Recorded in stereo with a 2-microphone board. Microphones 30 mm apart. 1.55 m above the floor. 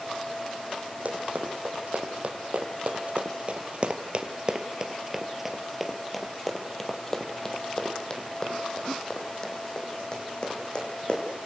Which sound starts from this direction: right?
Running footsteps, at 1.1 s.